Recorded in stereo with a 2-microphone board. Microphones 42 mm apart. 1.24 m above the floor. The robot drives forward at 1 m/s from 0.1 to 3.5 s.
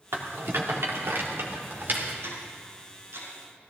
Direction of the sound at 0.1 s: 85° right.